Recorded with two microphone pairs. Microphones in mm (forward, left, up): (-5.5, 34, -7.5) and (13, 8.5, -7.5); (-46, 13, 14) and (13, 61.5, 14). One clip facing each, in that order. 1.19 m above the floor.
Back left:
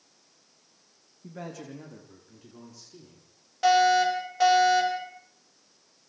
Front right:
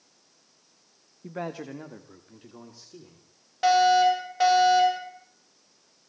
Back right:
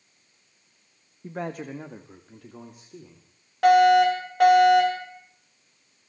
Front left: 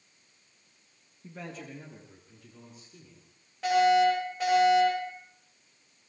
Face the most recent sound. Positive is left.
turn(degrees=-130)